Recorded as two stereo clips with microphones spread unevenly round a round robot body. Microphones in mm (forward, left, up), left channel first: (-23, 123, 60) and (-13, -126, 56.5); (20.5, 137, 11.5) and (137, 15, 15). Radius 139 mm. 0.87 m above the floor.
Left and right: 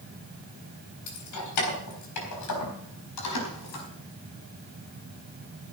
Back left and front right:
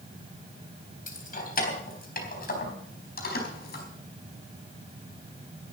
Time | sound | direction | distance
1.1 | keys jangling | 100° left | 3.5 m